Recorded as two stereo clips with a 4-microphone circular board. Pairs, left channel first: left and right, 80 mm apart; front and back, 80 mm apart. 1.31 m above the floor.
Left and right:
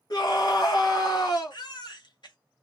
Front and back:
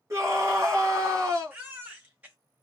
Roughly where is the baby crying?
Behind left.